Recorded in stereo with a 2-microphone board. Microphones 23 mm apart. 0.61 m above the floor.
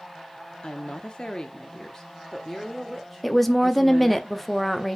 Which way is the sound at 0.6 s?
50° left (ahead or behind).